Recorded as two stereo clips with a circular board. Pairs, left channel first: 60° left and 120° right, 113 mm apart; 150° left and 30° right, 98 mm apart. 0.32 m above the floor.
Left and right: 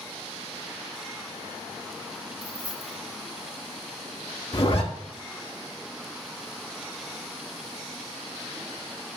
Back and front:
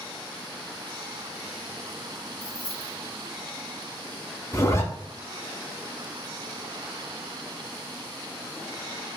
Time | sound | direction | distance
2.4 | keys jangling | 15° right | 1.6 m
4.5 | a zipper | 95° left | 0.7 m